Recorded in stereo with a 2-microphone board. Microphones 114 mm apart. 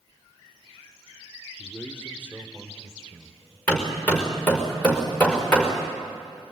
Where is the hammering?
15° left (ahead or behind), 5 m.